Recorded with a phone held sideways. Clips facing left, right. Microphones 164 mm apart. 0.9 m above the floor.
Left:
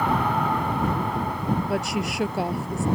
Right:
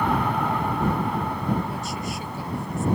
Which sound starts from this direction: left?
A woman speaking, at 1.7 s.